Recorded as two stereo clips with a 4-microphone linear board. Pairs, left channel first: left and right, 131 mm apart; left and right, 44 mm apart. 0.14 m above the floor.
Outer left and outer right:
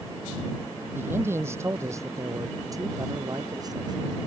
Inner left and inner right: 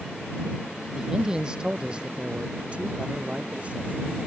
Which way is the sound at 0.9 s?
15° right (ahead or behind).